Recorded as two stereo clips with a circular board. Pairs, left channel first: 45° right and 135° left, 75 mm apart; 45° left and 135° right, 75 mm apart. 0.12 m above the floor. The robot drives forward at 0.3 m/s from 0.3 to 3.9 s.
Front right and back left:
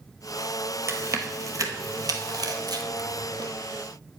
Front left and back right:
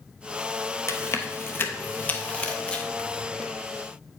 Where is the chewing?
90° left, 1.0 m; by 3.5 s 130° left, 1.3 m.